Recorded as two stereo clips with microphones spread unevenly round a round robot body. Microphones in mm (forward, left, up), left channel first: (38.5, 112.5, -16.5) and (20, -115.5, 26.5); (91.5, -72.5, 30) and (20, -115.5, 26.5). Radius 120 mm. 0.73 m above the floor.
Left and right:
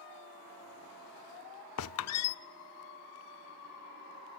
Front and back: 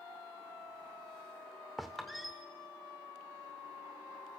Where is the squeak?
120° left, 0.5 m.